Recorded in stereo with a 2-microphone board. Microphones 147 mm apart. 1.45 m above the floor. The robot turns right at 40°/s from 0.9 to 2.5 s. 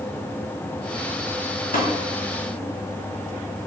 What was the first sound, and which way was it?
Tapping, 65° left (ahead or behind).